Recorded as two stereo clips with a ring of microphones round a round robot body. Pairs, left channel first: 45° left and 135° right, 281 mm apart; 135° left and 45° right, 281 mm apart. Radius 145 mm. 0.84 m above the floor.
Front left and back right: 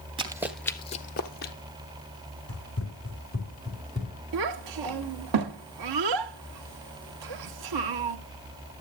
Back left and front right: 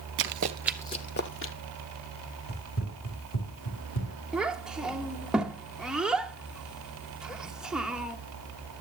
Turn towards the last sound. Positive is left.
turn(degrees=-135)